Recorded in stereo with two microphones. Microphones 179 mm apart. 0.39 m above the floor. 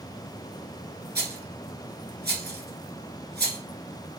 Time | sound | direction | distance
1.1 | a rattle | 80° right | 1.7 m